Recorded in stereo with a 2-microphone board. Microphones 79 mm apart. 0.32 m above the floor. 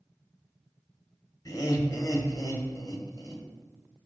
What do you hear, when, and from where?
1.4 s laughter: 45° left (ahead or behind), 1.2 m